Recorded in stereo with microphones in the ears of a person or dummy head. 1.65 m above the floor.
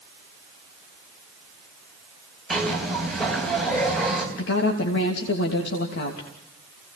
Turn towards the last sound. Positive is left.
turn(degrees=70)  # may be behind; listen again after turning